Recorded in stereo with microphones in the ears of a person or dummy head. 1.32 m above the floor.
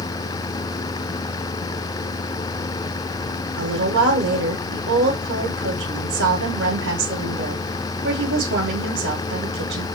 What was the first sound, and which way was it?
A woman speaking, 70° right (ahead or behind).